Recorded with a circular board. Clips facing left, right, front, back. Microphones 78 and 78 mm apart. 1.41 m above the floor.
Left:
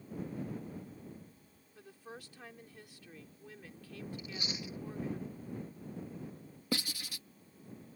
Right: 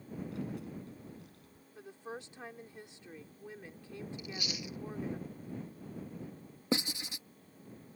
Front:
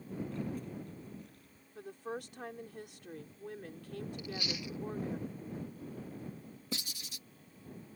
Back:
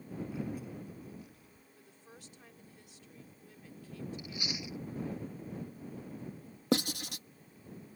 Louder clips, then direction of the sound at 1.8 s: Right 5 dB, front 17 dB; 25° right.